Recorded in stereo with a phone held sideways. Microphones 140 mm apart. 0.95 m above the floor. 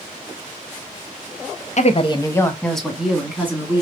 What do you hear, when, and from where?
1.8 s a woman speaking: 55° left (ahead or behind), 0.8 m; by 3.8 s 15° right (ahead or behind), 2.0 m